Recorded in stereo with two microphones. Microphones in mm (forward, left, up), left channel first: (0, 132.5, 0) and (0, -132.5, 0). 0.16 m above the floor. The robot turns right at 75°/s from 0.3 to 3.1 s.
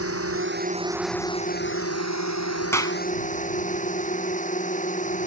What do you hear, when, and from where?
0.0 s a drone: 60° right; by 5.3 s 150° left
2.7 s a clap: 10° left (ahead or behind); by 3.0 s 20° left (ahead or behind)